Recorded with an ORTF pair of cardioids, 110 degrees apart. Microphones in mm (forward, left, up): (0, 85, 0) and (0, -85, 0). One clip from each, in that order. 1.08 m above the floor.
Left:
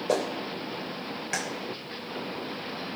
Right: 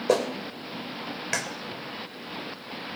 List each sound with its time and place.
0.1 s a clap: 30° right, 3 m